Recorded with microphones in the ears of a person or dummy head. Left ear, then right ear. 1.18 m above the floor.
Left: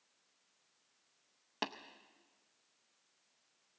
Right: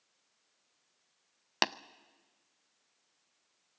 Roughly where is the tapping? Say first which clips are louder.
Right 10 dB; right.